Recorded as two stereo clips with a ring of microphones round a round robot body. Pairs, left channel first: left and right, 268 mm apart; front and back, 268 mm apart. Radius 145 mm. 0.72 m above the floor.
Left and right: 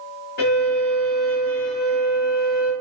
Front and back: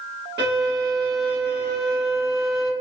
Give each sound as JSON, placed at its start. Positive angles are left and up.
{"t": 0.4, "sound": "a violin", "azimuth_deg": 135, "distance_m": 1.5}